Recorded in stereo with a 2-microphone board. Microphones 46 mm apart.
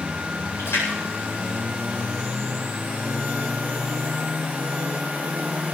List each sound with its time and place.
0.6 s a splash: 75° left (ahead or behind), 8.5 m